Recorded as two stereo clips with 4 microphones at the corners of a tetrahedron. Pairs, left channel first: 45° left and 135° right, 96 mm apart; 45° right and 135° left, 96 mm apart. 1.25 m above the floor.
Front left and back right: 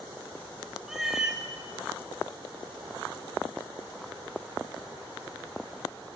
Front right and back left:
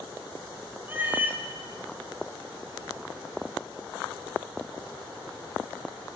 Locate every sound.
0.9 s a cat meowing: 145° left, 0.5 m